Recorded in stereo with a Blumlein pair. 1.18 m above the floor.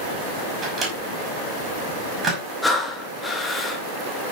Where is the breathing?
10° left, 2 m.